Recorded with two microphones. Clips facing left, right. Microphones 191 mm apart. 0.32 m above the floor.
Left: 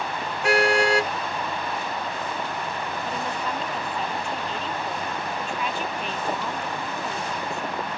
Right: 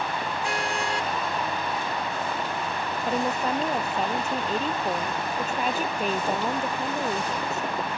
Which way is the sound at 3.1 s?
40° right (ahead or behind).